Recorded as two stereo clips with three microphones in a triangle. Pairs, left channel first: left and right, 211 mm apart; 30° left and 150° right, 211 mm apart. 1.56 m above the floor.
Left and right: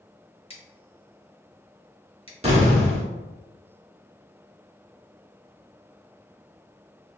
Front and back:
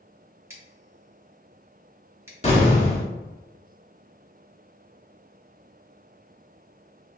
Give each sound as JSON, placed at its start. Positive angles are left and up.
{"t": 0.5, "sound": "scissors", "azimuth_deg": 140, "distance_m": 1.1}
{"t": 2.4, "sound": "an explosion", "azimuth_deg": -30, "distance_m": 1.1}